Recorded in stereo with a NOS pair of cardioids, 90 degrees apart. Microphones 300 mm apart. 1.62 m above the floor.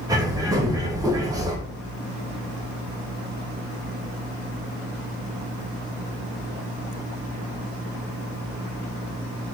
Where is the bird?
10° right, 1.9 m.